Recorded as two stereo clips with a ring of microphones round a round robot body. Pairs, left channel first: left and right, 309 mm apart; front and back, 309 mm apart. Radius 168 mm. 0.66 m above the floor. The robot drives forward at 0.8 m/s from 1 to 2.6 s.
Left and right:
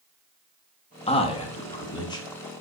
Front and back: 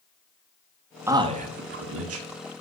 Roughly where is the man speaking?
Behind left.